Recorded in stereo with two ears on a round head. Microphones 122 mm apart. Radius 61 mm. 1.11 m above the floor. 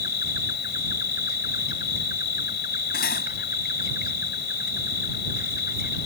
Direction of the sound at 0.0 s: 75° left (ahead or behind).